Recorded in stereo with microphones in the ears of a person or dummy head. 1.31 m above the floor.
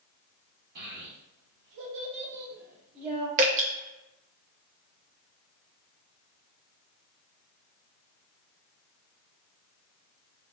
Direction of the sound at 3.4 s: 45° right (ahead or behind).